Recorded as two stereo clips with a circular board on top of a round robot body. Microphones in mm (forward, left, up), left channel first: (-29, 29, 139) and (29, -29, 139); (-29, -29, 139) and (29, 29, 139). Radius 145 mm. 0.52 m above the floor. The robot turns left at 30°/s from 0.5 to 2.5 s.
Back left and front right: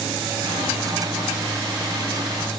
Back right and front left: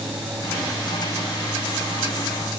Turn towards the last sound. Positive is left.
No sound to turn to.